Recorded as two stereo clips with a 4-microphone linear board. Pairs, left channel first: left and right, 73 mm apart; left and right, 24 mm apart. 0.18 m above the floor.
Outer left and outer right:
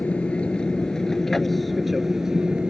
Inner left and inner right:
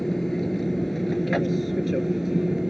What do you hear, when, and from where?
0.0 s an aircraft: 15° left (ahead or behind); by 2.7 s 10° right (ahead or behind)